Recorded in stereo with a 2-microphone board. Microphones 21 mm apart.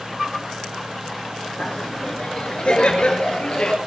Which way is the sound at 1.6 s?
55° left (ahead or behind).